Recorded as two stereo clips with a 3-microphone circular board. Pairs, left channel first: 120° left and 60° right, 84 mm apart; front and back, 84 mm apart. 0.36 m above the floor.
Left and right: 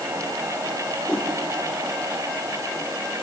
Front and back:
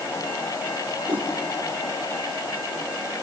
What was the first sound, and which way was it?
A whoosh, 165° right.